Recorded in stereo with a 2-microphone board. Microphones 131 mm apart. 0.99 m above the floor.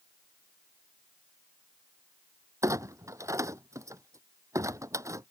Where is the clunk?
25° right (ahead or behind).